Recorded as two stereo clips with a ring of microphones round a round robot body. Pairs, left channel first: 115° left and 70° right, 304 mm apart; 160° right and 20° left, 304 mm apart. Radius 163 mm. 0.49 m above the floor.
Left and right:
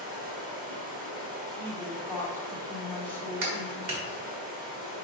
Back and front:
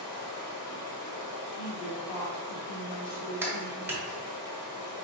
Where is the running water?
130° right, 1.5 m.